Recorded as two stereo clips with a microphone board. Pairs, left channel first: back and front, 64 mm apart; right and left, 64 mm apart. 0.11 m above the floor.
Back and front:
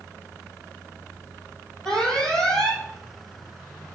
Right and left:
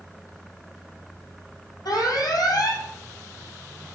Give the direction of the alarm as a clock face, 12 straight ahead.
3 o'clock.